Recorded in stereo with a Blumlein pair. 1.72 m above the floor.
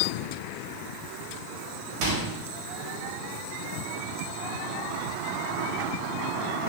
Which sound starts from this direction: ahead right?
A microwave, at 2.0 s.